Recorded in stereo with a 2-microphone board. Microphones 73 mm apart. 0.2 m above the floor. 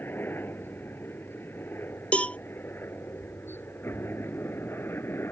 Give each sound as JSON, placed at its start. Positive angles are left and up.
{"t": 0.0, "sound": "a helicopter", "side_deg": 30}
{"t": 2.1, "sound": "a cowbell", "side_deg": 15}